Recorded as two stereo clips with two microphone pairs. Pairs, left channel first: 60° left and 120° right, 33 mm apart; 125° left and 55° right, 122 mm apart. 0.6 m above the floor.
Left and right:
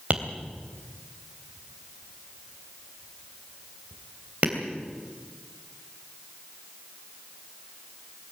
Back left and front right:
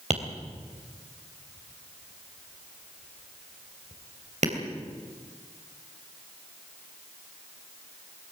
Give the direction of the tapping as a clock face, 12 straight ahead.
2 o'clock.